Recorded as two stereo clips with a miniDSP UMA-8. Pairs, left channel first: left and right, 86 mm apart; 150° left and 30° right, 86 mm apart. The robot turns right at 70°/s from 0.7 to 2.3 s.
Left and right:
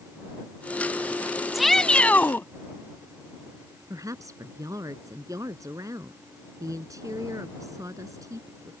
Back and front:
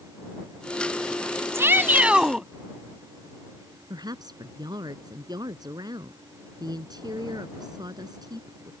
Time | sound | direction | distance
1.5 | a shout | 5° right | ?
3.9 | a woman speaking | 50° right | ?